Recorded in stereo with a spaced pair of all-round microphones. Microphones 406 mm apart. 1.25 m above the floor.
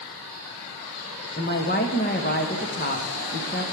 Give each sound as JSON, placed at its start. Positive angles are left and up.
{"t": 1.4, "sound": "a woman speaking", "side_deg": 25, "distance_m": 1.2}